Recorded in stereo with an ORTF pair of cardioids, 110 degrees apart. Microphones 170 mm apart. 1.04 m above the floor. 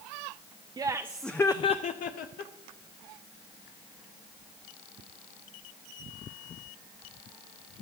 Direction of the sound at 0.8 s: 25° right.